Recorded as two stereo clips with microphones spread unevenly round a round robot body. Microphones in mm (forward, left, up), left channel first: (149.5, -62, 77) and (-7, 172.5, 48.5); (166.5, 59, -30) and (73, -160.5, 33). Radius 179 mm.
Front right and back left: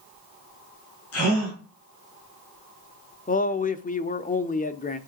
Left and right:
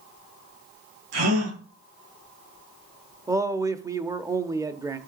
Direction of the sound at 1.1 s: 105° right.